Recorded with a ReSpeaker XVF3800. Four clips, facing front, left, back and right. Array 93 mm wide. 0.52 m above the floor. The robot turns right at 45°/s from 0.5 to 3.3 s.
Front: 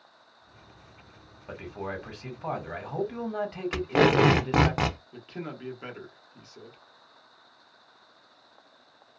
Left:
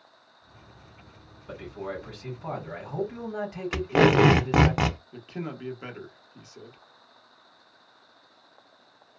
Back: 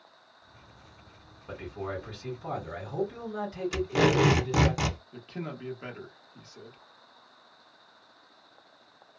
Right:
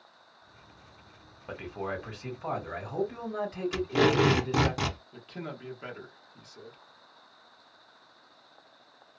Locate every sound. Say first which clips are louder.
1.5 s a man speaking: even, even; 65° right, 1.7 m; by 4.7 s 15° left, 1.7 m
3.7 s tape being pulled: left 5 dB, front 3 dB; 55° left, 0.5 m
5.1 s a man speaking: left 4 dB, even; 75° left, 0.9 m